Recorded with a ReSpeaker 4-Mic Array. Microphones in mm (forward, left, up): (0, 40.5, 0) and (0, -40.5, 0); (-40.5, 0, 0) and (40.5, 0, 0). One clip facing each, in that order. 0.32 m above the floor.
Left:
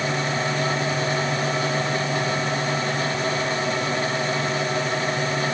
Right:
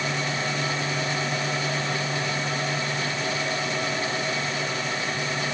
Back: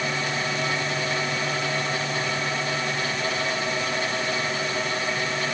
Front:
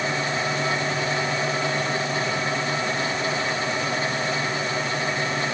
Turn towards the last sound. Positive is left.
No sound to turn to.